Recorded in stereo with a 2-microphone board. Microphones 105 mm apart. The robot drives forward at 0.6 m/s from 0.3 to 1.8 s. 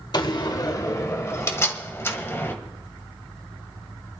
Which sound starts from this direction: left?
A door slam, at 0.1 s.